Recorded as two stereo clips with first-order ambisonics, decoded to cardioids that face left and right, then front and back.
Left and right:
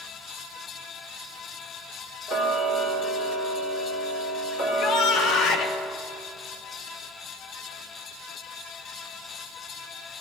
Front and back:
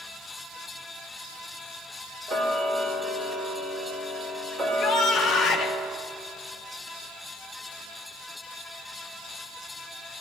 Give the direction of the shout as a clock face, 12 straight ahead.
10 o'clock.